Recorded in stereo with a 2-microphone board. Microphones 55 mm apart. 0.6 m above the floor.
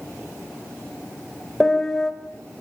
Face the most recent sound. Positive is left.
turn(degrees=5)  # may be behind; listen again after turning